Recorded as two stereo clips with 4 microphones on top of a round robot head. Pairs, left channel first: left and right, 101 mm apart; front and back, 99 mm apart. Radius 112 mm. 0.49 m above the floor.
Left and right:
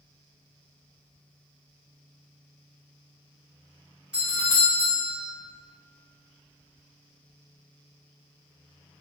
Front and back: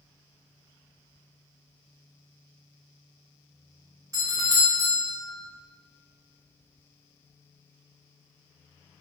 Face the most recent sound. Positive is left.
turn(degrees=-160)